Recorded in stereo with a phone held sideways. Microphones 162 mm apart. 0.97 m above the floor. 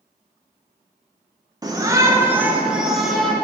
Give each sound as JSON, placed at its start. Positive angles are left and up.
{"t": 1.6, "sound": "a shout", "side_deg": -25, "distance_m": 0.8}